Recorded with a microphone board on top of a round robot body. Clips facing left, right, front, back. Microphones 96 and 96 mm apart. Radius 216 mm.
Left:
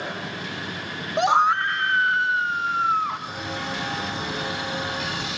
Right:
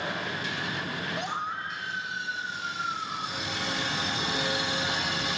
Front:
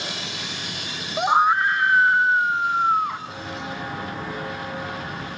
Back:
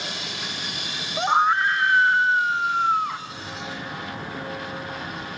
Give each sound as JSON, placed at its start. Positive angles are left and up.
{"t": 1.2, "sound": "a scream", "azimuth_deg": 80, "distance_m": 0.5}
{"t": 3.3, "sound": "footsteps", "azimuth_deg": 35, "distance_m": 8.5}